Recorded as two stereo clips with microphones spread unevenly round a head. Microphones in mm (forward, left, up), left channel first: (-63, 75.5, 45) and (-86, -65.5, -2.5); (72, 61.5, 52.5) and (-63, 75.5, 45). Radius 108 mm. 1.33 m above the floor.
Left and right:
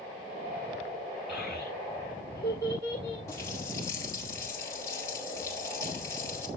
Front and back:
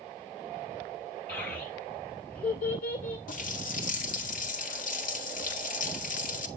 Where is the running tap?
10° left, 1.4 m.